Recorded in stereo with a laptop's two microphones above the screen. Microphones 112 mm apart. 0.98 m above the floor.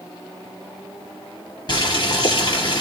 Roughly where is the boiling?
Left.